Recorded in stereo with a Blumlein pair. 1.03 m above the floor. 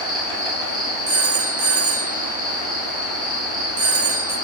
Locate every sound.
0.0 s an insect: 10° left, 1.5 m
1.1 s a phone ringing: 50° right, 0.6 m